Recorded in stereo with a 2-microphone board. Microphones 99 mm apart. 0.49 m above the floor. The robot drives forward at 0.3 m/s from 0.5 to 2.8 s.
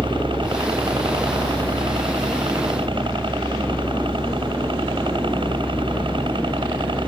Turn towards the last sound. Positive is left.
turn(degrees=-60)  # may be behind; listen again after turning